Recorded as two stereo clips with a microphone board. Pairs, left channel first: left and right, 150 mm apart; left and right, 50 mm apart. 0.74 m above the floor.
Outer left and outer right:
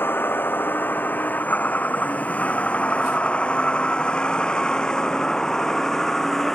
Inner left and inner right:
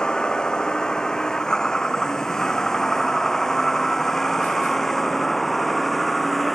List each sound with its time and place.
0.0 s a vehicle: 15° left (ahead or behind); by 6.6 s centre (ahead or behind)